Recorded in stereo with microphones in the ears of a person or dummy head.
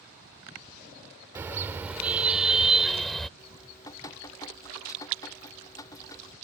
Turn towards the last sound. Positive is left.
turn(degrees=20)  # may be behind; listen again after turning